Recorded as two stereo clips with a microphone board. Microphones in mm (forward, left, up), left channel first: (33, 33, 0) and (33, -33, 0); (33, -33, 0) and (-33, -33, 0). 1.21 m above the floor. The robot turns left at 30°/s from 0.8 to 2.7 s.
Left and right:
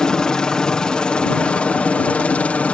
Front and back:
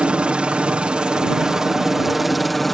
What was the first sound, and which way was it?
A helicopter, 145° left.